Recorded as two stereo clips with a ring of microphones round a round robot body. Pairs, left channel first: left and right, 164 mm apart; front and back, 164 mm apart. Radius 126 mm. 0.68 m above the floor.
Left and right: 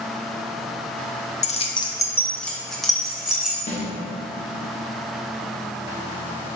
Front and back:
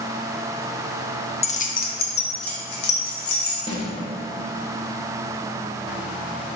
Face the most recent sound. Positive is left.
turn(degrees=55)